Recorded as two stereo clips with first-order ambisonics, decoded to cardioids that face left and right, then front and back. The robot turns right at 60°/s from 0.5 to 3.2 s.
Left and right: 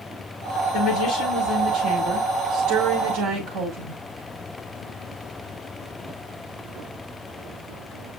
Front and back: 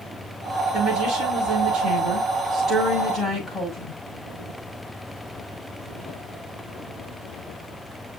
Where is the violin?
No violin in this recording.